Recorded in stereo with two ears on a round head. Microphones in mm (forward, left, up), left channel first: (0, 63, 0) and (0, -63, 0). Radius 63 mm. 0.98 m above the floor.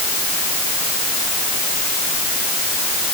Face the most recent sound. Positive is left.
No sound to turn to.